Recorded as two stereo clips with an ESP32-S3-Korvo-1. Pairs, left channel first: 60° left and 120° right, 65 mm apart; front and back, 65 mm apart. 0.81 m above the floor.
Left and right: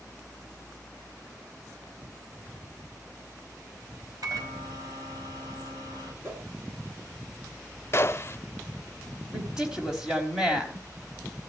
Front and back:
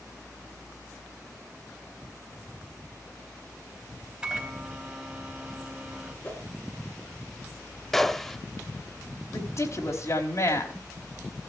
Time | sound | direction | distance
4.2 | a microwave | 105° right | 3.5 m
6.2 | a whoosh | 65° right | 9 m
7.9 | a gunshot | 80° left | 0.6 m
9.3 | a woman speaking | 40° right | 4 m